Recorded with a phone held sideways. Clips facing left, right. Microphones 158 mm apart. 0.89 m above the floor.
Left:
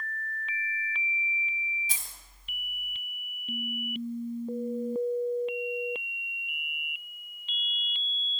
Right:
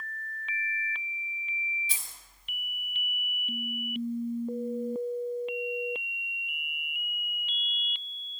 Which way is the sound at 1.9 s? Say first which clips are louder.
Left 1 dB; 45° left (ahead or behind).